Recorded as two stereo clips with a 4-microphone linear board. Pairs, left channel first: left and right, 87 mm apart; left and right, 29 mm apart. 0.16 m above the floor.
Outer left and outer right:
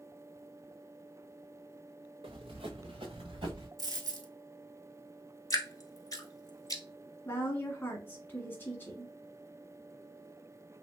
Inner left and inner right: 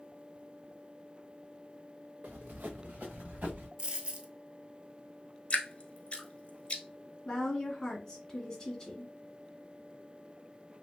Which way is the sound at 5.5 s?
40° left (ahead or behind).